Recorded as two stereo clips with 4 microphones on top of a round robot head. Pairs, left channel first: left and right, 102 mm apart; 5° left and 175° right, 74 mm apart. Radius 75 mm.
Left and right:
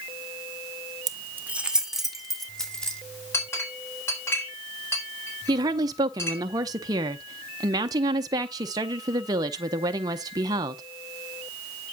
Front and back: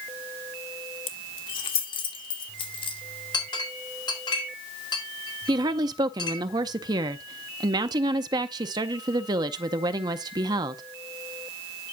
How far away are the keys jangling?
About 0.9 m.